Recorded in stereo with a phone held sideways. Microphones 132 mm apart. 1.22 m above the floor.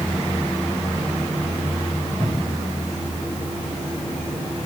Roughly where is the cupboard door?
Right.